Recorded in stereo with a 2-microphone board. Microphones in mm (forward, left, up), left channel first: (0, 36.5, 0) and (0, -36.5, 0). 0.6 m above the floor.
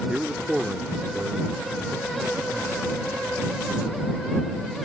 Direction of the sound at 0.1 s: 10° right (ahead or behind).